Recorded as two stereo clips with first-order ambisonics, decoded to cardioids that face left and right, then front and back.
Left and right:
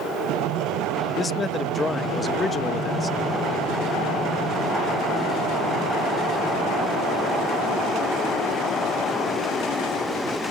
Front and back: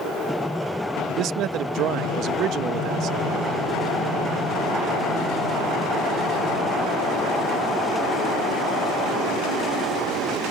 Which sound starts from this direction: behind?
A man speaking, at 1.1 s.